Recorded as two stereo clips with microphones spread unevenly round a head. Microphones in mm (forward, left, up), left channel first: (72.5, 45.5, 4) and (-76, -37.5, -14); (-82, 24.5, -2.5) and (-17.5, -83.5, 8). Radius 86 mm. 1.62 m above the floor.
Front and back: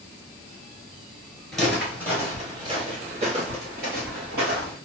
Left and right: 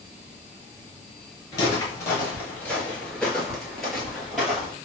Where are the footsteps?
95° left, 1.6 m; by 4.8 s 140° right, 2.5 m.